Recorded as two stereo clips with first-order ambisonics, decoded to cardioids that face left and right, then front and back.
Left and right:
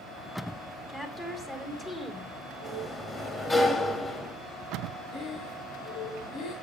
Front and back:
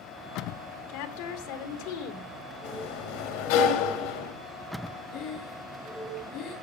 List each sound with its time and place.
0.9 s a woman speaking: 10° left, 2.5 m
2.6 s a sliding door: 10° left, 3.5 m
5.1 s breathing: 50° left, 8 m